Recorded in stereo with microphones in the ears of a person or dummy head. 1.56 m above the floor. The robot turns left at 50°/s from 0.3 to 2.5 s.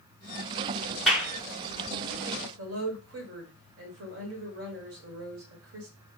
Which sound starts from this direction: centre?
A clap, at 1.1 s.